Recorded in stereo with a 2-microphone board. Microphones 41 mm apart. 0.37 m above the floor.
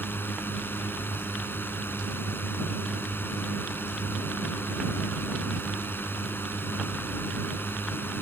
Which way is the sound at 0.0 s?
65° left (ahead or behind).